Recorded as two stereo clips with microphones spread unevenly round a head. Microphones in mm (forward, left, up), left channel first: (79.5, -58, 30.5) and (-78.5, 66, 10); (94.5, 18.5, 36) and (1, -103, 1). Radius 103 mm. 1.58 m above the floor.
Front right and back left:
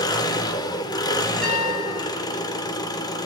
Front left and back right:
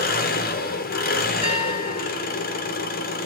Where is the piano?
50° left, 1.5 m.